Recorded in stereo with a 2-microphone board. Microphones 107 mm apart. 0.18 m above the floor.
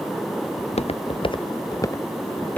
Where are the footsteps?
85° left; by 2.6 s 15° left (ahead or behind).